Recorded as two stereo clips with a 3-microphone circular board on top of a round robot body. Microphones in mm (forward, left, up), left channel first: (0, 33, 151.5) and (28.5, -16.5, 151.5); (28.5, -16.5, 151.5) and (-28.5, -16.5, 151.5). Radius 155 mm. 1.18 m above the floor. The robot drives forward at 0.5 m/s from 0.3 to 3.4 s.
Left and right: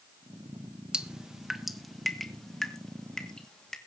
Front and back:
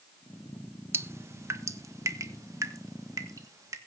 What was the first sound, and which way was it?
Dripping, 135° right.